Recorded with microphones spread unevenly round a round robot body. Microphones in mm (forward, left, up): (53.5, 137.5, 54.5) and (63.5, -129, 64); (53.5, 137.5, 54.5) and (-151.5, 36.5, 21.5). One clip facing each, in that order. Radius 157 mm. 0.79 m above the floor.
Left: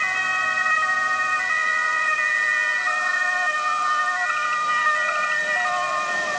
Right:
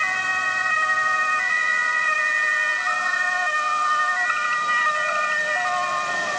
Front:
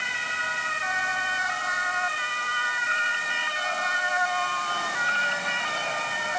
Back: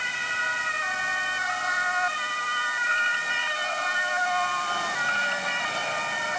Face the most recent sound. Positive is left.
No sound to turn to.